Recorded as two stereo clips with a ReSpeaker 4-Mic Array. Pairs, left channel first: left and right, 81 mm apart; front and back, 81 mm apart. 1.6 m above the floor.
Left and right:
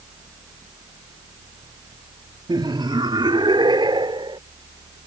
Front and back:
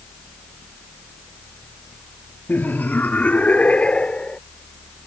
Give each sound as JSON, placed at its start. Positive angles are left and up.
{"t": 2.5, "sound": "laughter", "azimuth_deg": -65}